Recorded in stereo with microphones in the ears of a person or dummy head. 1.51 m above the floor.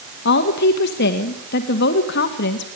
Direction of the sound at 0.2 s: 60° left (ahead or behind).